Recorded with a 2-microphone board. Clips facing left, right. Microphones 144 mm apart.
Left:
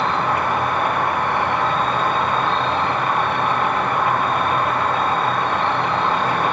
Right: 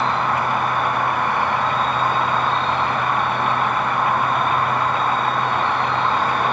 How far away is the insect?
About 1.3 m.